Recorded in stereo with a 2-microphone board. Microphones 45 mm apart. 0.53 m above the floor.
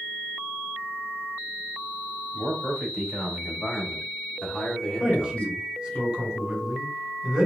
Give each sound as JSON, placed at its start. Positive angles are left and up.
{"t": 2.3, "sound": "a man speaking", "side_deg": -5, "distance_m": 2.5}
{"t": 5.0, "sound": "a man speaking", "side_deg": -15, "distance_m": 1.9}